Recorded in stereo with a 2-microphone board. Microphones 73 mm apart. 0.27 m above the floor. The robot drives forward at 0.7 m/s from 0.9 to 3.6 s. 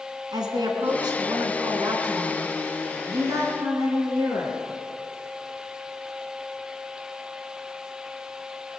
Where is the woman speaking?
70° right (ahead or behind), 2 m; by 4.6 s 45° right (ahead or behind), 3 m.